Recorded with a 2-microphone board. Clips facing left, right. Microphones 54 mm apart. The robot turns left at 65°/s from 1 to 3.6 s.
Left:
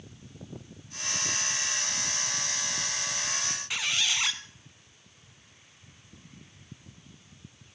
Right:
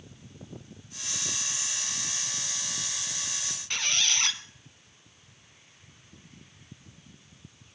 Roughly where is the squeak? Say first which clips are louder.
Right 1 dB; centre.